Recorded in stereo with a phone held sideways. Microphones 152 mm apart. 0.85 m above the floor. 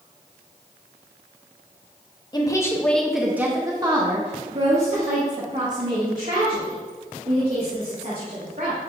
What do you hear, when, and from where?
2.3 s a woman speaking: 30° left (ahead or behind), 1.0 m; by 8.8 s 70° right (ahead or behind), 4 m